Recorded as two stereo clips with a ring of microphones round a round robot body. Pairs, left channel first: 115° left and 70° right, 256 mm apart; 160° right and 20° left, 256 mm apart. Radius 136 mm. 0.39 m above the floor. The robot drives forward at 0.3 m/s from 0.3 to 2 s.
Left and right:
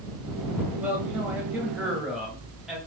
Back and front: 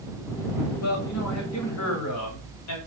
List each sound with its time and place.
0.8 s a man speaking: 150° right, 1.7 m; by 2.8 s 155° right, 2 m